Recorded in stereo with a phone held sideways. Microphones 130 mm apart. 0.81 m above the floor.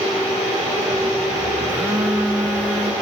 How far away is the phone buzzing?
About 3 m.